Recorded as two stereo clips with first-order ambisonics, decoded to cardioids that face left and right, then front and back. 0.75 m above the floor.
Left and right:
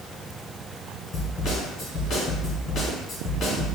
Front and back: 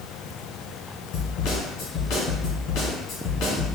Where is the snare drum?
25° left, 1.4 m.